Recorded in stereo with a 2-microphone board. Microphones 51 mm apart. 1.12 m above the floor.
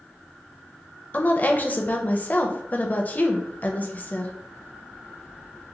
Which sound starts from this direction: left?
A woman speaking, at 1.1 s.